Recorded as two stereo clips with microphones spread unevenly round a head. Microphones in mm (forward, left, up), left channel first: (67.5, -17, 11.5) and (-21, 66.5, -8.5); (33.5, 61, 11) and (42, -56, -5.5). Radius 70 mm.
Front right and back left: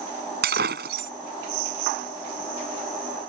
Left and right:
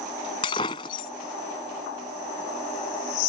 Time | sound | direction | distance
0.4 | breaking glass | 150° left | ?